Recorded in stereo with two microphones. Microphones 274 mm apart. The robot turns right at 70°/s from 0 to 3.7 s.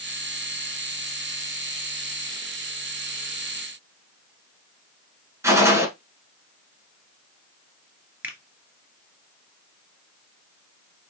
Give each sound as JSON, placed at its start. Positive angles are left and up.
{"t": 5.4, "sound": "a gunshot", "side_deg": -10, "distance_m": 1.5}
{"t": 8.2, "sound": "a finger snap", "side_deg": -5, "distance_m": 1.5}